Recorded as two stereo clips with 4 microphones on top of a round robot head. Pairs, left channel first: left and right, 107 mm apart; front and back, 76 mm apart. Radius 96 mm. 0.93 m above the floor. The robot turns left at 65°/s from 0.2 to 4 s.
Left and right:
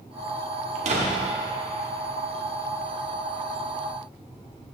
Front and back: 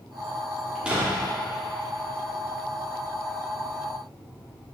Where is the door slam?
90° right, 1.4 m; by 1.2 s 125° right, 1.4 m.